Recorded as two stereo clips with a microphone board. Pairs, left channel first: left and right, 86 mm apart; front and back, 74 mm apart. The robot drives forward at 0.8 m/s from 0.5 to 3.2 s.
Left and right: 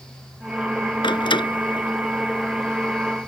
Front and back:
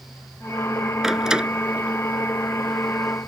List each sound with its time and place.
1.0 s a door slam: 95° left; by 3.3 s 125° left